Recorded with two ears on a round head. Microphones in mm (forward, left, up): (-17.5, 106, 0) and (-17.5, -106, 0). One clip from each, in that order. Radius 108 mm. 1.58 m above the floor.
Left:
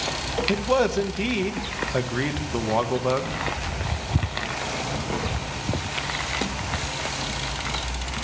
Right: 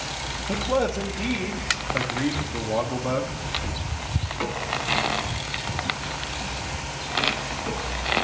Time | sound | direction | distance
0.5 | a man speaking | 60° left (ahead or behind) | 1.0 m